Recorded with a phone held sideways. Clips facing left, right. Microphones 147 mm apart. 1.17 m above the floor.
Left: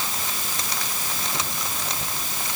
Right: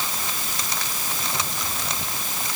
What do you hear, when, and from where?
Only background noise.